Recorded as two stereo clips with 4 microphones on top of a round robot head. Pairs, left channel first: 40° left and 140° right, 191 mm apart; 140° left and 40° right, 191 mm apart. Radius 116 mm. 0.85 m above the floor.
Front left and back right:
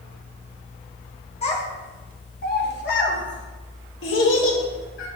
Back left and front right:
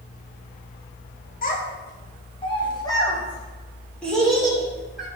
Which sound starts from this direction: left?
A child speaking, at 1.4 s.